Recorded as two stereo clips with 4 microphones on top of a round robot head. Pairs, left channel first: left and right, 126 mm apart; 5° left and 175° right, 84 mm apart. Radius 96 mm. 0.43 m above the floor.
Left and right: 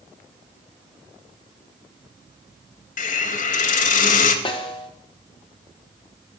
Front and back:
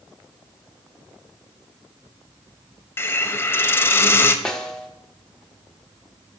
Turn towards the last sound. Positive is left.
turn(degrees=85)